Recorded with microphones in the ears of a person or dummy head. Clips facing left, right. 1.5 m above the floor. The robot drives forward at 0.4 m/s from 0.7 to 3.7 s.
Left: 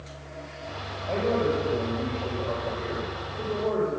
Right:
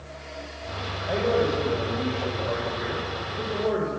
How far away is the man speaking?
About 8.5 m.